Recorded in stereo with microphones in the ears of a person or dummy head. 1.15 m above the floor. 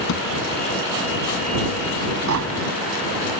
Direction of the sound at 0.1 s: 65° left (ahead or behind).